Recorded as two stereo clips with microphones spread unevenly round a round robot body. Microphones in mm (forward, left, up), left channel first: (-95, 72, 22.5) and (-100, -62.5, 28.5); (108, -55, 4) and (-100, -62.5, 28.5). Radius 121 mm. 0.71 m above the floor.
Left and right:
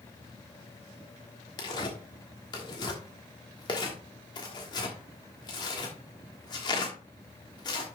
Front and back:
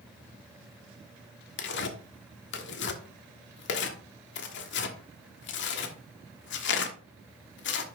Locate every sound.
1.6 s tearing paper: 25° left, 1.2 m